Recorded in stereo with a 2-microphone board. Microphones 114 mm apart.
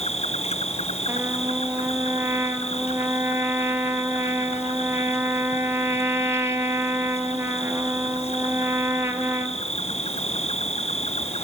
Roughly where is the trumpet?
Right.